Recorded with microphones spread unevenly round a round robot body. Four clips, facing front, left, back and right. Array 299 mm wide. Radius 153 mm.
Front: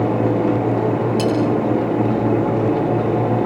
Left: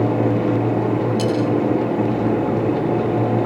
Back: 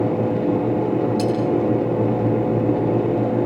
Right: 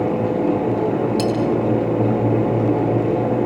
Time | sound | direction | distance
1.2 | cutlery clinking | 70° right | 6 m